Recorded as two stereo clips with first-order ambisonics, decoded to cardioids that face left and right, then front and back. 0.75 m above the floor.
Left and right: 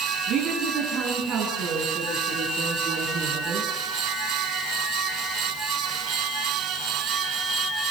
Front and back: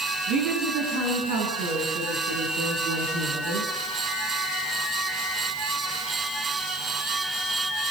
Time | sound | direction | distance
0.3 | a woman speaking | 140° right | 7 m